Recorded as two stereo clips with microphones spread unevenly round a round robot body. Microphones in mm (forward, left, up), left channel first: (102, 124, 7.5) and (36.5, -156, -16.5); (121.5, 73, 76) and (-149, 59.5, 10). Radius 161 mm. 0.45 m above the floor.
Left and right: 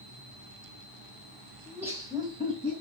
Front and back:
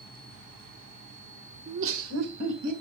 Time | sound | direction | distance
1.7 | laughter | 175° left | 1.2 m